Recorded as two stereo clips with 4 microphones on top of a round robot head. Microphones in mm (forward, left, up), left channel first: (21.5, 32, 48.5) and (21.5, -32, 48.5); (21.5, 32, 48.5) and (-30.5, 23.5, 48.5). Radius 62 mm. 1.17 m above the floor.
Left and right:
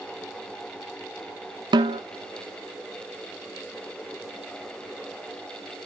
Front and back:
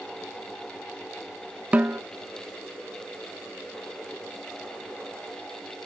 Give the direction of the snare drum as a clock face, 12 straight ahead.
3 o'clock.